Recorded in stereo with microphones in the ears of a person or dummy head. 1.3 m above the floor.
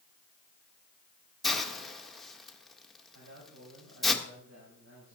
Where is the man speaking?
75° right (ahead or behind), 5.5 m.